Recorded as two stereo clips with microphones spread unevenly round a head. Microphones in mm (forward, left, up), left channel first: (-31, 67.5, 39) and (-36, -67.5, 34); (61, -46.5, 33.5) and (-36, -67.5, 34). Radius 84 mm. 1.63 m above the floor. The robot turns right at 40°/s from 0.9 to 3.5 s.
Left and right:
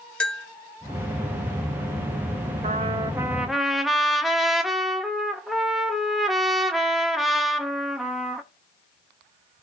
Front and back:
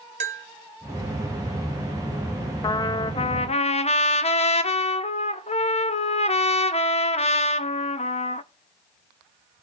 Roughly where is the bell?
Behind.